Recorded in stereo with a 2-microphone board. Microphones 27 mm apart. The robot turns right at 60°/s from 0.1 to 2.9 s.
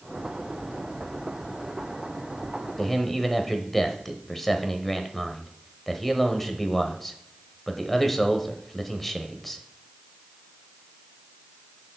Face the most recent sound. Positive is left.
turn(degrees=10)  # may be behind; listen again after turning